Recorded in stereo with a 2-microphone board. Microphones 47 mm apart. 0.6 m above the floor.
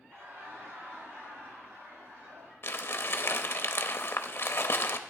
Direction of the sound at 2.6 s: 55° left (ahead or behind).